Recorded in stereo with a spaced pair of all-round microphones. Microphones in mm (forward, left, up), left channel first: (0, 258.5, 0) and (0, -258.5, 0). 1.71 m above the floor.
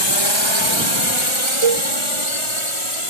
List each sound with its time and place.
0.0 s a drone: 55° left (ahead or behind); by 3.1 s 75° left (ahead or behind)
1.6 s a cowbell: 85° right